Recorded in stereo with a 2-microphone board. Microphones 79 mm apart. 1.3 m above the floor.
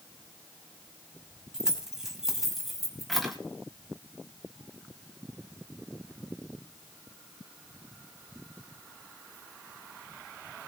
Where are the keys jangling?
10° right (ahead or behind), 5.5 m; by 3.4 s centre (ahead or behind), 4.5 m.